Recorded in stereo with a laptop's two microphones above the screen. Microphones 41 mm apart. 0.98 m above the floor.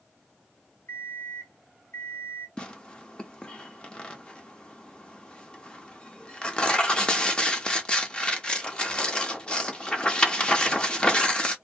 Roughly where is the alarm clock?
Left.